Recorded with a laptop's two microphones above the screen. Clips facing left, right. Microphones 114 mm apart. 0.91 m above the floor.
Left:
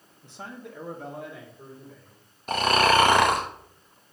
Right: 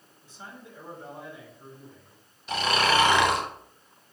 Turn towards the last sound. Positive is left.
turn(degrees=45)  # may be behind; listen again after turning